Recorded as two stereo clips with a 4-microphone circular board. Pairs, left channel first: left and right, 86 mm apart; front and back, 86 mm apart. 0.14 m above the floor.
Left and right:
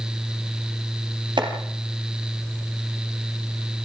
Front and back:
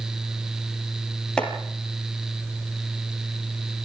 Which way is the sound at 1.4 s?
80° right.